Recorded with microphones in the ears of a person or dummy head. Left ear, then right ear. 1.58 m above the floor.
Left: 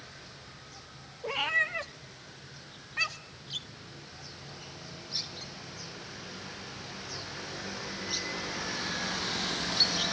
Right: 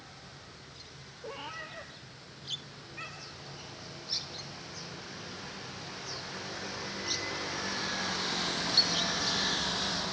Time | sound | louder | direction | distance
1.2 | a cat meowing | left 13 dB | 25° left (ahead or behind) | 1.1 m